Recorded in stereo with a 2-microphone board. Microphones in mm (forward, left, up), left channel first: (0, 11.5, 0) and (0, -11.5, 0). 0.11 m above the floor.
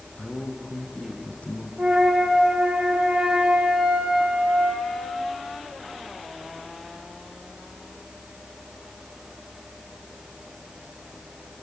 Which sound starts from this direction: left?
A man speaking, at 0.2 s.